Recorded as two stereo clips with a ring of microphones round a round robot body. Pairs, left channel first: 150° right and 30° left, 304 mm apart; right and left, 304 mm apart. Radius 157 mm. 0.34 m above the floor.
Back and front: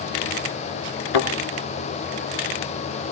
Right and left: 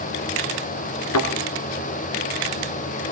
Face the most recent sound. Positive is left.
turn(degrees=-140)